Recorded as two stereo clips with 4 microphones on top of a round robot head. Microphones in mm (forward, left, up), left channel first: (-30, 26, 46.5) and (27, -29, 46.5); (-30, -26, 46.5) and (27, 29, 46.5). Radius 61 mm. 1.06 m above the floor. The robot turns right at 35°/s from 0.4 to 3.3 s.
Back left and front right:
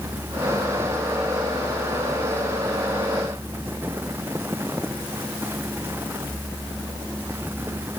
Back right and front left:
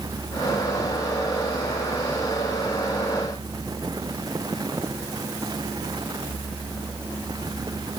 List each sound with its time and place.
Only background noise.